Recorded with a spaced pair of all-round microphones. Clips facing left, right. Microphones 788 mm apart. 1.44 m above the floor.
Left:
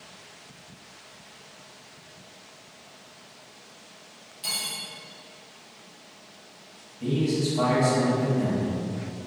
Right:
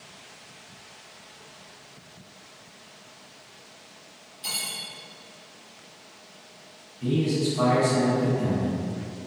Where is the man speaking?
60° left (ahead or behind), 1.3 m.